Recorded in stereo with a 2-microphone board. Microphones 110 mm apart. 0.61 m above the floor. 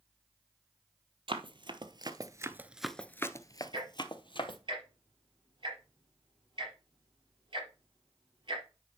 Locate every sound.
1.3 s running footsteps: 50° right (ahead or behind), 1.2 m; by 4.6 s 50° left (ahead or behind), 1.3 m
3.7 s ticking: 45° right (ahead or behind), 5 m